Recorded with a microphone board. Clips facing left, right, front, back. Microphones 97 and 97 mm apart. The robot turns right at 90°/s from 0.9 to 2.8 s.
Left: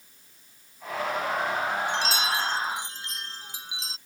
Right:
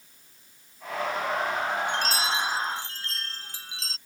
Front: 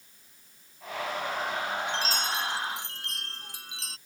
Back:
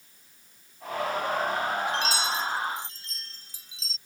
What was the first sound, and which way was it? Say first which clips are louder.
A chime: even, back 3 dB; 65° right.